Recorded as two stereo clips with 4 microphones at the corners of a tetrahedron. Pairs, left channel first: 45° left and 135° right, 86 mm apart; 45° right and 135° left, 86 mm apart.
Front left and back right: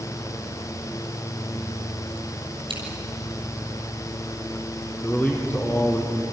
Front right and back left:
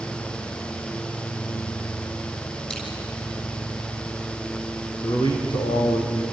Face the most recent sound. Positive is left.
turn(degrees=-20)